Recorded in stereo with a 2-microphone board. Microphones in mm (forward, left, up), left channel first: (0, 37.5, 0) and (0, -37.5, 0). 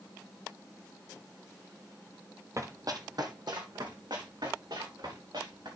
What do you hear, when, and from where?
2.6 s running footsteps: 40° right (ahead or behind), 1.4 m; by 5.7 s 75° right (ahead or behind), 5.5 m